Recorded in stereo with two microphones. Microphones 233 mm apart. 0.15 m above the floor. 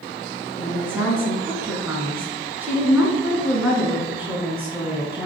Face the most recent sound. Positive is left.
turn(degrees=-5)  # may be behind; listen again after turning